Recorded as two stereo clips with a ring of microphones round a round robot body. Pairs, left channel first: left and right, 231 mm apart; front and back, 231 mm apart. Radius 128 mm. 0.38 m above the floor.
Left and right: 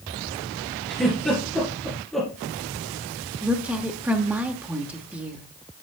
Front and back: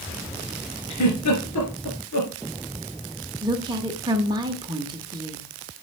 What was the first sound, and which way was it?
A giggle, straight ahead.